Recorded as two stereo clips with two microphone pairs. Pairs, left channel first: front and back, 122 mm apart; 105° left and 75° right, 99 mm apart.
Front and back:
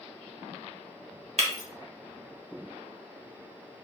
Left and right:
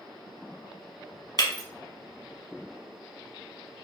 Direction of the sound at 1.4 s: 155° left.